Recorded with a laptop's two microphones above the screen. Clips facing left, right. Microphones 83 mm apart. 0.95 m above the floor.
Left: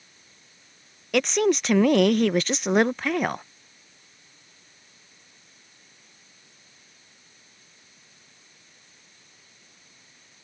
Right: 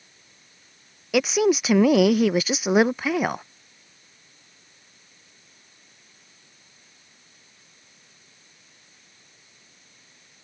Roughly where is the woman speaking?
Centre.